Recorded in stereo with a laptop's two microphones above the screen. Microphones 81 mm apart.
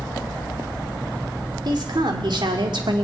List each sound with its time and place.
1.6 s a woman speaking: 60° right (ahead or behind), 2.5 m; by 3.0 s 70° right (ahead or behind), 2.0 m